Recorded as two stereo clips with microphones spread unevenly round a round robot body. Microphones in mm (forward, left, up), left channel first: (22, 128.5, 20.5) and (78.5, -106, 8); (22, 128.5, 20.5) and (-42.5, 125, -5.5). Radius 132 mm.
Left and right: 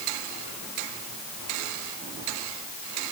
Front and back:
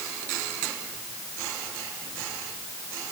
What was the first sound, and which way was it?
Only background noise.